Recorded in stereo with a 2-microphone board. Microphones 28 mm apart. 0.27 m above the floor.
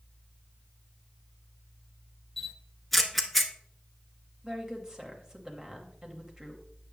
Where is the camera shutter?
10° left (ahead or behind), 0.7 m.